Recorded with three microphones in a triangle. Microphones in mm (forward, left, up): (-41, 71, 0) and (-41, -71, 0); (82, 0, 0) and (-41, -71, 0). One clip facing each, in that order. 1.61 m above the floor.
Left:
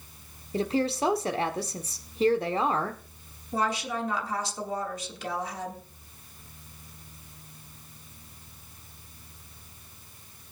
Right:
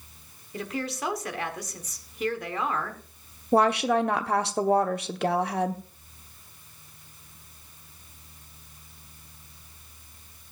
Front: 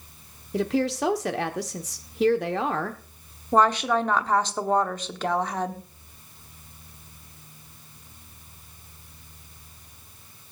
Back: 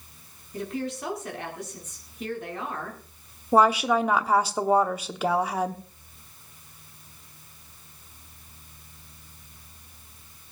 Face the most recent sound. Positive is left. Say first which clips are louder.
# right 8 dB, back 1 dB
turn(degrees=-70)